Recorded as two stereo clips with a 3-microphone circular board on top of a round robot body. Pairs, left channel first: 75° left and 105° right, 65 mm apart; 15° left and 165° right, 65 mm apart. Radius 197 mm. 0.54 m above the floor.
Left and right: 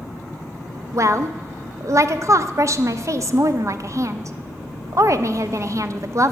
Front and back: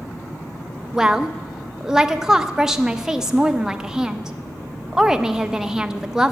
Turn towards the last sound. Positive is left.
turn(degrees=-90)